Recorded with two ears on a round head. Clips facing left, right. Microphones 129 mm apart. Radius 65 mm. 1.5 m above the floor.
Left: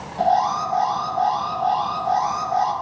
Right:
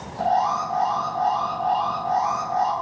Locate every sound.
0.2 s an alarm: 40° left (ahead or behind), 5.5 m